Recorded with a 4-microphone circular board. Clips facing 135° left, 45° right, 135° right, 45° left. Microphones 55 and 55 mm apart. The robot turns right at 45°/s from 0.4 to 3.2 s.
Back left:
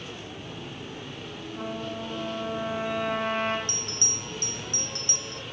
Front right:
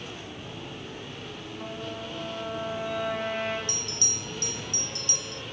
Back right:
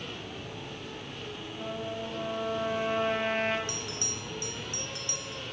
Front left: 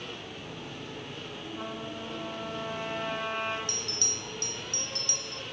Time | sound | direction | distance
1.6 | a trumpet | 105° left | 5 m
3.7 | a bell | 160° left | 0.5 m